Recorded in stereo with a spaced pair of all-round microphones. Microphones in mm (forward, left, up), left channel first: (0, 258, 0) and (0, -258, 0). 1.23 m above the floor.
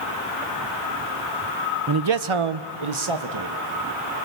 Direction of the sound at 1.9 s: 40° right (ahead or behind).